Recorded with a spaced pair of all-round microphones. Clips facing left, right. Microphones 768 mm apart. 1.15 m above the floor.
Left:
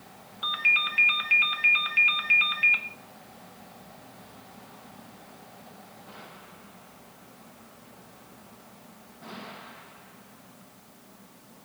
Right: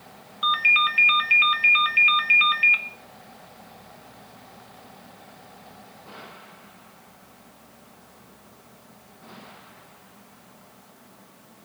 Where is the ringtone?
20° right (ahead or behind), 0.5 m.